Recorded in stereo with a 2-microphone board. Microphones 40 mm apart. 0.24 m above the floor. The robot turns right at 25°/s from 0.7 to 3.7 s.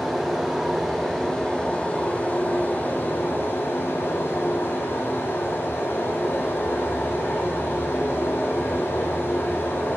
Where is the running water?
Straight ahead, 0.9 m; by 10.0 s 75° left, 0.9 m.